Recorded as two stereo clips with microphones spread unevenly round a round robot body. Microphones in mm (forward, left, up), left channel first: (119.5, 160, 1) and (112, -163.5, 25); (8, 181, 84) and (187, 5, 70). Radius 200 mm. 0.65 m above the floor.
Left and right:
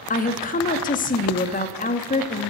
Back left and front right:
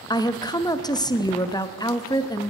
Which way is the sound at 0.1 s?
70° left.